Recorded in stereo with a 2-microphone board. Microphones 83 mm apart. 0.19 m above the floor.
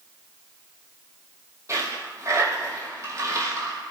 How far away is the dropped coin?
About 3.5 m.